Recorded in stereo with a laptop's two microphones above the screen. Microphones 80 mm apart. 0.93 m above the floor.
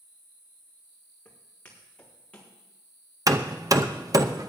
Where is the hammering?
45° right (ahead or behind), 0.6 m.